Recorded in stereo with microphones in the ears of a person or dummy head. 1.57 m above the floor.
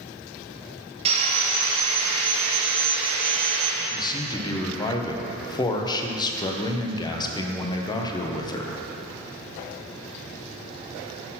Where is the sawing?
30° right (ahead or behind), 1.5 m.